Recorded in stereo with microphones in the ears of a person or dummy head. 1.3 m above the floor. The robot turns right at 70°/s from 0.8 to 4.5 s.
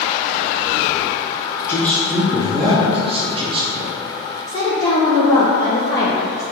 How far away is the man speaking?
About 0.6 m.